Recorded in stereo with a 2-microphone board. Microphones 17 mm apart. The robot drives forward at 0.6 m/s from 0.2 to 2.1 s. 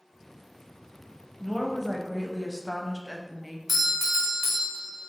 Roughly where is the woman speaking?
Centre.